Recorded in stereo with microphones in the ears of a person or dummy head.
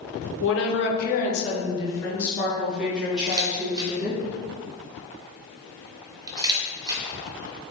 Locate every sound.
0.4 s a woman speaking: 65° left (ahead or behind), 0.9 m; by 4.2 s 15° right (ahead or behind), 2 m
3.3 s a camera shutter: 20° right (ahead or behind), 0.9 m